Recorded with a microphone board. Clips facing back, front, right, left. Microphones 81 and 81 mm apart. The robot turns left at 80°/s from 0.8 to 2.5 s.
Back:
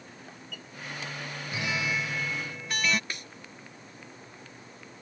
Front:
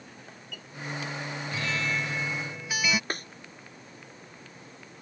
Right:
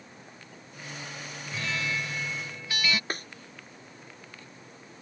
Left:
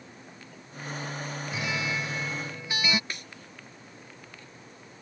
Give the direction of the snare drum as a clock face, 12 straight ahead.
1 o'clock.